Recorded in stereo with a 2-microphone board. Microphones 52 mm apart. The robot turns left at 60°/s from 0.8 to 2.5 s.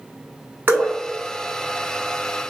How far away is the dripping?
About 1.3 m.